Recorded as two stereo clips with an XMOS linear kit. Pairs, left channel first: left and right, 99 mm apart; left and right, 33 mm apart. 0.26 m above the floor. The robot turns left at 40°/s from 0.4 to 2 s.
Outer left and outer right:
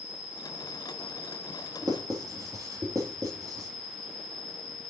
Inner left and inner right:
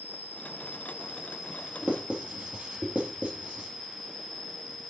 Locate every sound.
0.0 s an insect: 120° right, 2.5 m; by 4.9 s straight behind, 2.5 m
1.8 s writing: 40° right (ahead or behind), 3.5 m; by 3.7 s 35° right (ahead or behind), 3.5 m